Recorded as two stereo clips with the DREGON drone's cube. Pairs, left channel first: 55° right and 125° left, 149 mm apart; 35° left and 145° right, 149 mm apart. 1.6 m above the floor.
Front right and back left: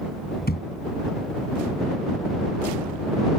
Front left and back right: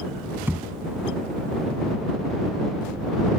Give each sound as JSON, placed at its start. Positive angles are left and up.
{"t": 0.5, "sound": "a thud", "azimuth_deg": -70}